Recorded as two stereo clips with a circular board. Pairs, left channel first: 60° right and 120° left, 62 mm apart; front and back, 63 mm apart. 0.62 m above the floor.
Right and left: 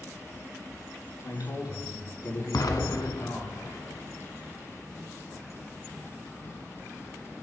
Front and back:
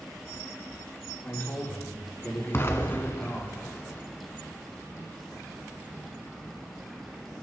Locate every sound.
1.2 s a man speaking: 55° right, 6.5 m
2.5 s an explosion: 50° right, 1.5 m